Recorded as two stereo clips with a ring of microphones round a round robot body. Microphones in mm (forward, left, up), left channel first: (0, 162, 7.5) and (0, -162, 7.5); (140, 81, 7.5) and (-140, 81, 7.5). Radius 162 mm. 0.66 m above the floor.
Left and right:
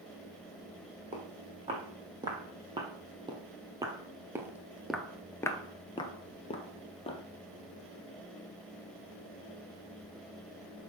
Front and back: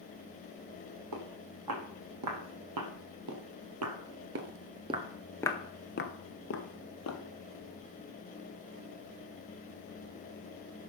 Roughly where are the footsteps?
Behind.